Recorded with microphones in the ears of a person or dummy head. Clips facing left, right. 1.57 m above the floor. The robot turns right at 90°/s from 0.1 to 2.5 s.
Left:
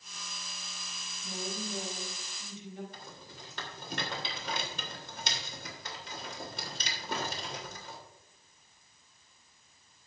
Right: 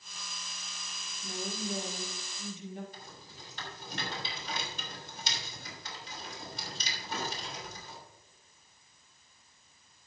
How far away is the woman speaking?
About 4.5 m.